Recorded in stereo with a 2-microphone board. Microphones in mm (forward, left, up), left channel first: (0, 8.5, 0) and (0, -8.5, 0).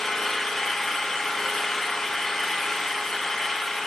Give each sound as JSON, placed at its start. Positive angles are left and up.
{"t": 0.0, "sound": "an engine running", "side_deg": 25, "distance_m": 5.5}